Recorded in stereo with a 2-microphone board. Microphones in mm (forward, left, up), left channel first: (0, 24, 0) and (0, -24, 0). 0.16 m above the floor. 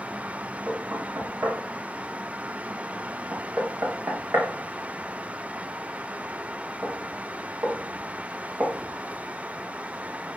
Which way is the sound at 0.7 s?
40° right (ahead or behind).